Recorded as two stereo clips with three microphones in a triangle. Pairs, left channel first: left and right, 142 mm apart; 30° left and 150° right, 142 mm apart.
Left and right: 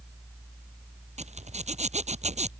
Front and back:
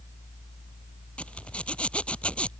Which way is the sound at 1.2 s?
50° right.